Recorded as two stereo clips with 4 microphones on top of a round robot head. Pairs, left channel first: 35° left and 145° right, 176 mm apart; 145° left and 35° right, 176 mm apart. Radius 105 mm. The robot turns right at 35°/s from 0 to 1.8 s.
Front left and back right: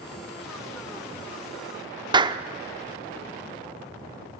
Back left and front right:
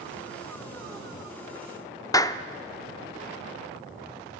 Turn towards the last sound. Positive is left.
turn(degrees=-170)